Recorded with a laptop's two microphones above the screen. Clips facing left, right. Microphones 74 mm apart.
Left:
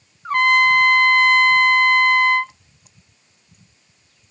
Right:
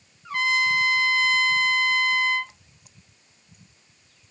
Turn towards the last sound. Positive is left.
turn(degrees=50)  # may be behind; listen again after turning